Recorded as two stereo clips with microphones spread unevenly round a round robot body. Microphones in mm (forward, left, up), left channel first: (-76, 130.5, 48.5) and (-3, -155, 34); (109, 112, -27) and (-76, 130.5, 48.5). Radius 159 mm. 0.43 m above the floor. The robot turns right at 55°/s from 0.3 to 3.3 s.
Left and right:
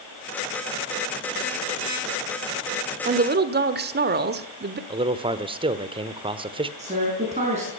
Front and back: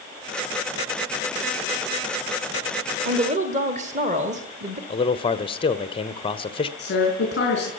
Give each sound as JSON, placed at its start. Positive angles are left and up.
{"t": 3.0, "sound": "a woman speaking", "azimuth_deg": -130, "distance_m": 1.4}
{"t": 4.9, "sound": "a man speaking", "azimuth_deg": -10, "distance_m": 1.2}
{"t": 6.8, "sound": "a woman speaking", "azimuth_deg": -5, "distance_m": 5.0}